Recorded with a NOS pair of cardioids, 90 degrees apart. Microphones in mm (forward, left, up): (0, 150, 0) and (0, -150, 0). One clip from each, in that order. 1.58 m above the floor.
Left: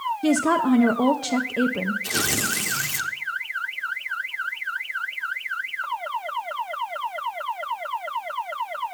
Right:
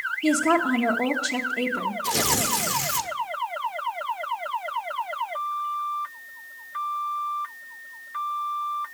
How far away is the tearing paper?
About 1.0 m.